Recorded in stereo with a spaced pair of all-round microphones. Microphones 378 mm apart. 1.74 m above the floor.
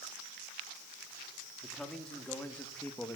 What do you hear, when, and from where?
1.6 s a man speaking: centre (ahead or behind), 4.5 m; by 3.2 s 5° left (ahead or behind), 3 m